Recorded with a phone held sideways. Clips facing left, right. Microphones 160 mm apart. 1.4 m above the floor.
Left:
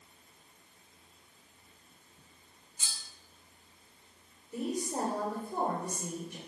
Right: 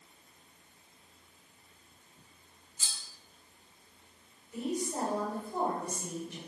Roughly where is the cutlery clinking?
Left.